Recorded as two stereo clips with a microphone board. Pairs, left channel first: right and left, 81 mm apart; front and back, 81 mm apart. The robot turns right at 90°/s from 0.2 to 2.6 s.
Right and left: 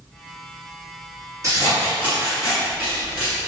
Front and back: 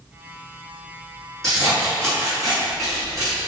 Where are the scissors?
85° left, 1.8 m; by 3.4 s 170° right, 1.8 m.